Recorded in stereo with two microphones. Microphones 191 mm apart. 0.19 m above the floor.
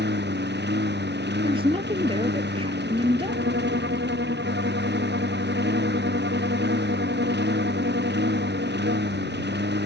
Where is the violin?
70° right (ahead or behind).